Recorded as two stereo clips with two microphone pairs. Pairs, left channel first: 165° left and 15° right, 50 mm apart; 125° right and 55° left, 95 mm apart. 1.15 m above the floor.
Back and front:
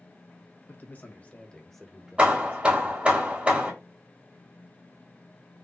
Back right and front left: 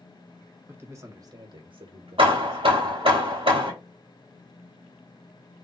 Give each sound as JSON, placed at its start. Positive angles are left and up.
{"t": 0.7, "sound": "a man speaking", "azimuth_deg": 120, "distance_m": 1.4}
{"t": 2.2, "sound": "hammering", "azimuth_deg": 45, "distance_m": 1.2}